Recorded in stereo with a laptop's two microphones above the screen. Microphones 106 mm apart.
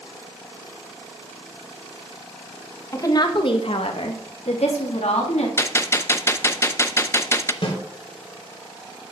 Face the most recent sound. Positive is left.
turn(degrees=60)  # may be behind; listen again after turning